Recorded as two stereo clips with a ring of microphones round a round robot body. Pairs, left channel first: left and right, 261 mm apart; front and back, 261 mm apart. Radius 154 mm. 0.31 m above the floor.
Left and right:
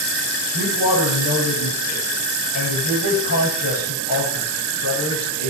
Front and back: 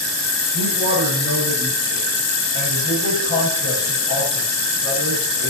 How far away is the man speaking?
About 8.5 m.